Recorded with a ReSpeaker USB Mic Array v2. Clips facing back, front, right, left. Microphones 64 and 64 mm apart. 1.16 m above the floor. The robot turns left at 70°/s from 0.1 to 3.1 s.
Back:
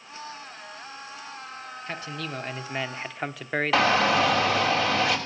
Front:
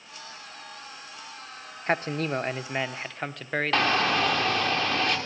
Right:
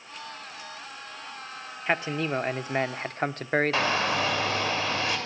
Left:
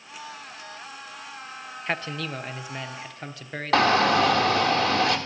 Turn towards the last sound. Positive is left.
turn(degrees=95)